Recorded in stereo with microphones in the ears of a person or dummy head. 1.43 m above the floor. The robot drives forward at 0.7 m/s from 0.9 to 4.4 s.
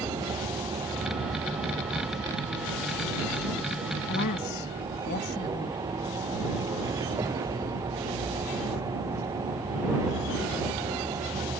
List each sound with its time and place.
0.0 s a vehicle: 20° right (ahead or behind)
4.1 s a woman speaking: 60° left (ahead or behind); by 5.8 s 55° left (ahead or behind)